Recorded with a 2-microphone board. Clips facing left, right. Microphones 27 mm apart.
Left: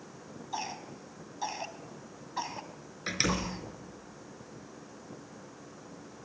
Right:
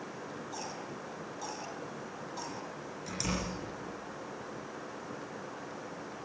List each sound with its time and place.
0.5 s a cough: 35° left (ahead or behind), 3 m
3.1 s a door slam: 55° left (ahead or behind), 4 m